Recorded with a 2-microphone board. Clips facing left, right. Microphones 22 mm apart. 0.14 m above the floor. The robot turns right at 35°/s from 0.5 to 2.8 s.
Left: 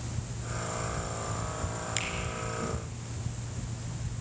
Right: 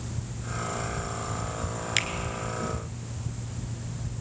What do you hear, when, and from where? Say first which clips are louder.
2.0 s a finger snap: right 8 dB; 40° right (ahead or behind), 1.7 m; by 2.1 s 35° right (ahead or behind), 1.7 m